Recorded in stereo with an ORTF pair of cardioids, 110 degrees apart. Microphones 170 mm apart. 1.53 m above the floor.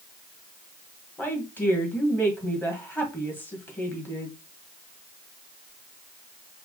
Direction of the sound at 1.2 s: 10° left.